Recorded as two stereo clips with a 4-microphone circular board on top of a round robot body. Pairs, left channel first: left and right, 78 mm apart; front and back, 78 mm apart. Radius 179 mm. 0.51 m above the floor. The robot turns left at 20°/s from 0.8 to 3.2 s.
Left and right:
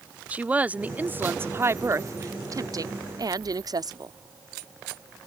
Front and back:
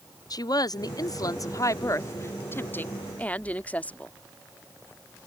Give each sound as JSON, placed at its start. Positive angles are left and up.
{"t": 0.3, "sound": "a woman speaking", "azimuth_deg": -20}